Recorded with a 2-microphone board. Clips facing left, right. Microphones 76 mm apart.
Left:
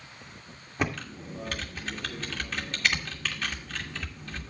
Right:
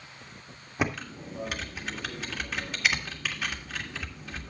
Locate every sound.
0.8 s typing on a keyboard: 10° right (ahead or behind), 1.8 m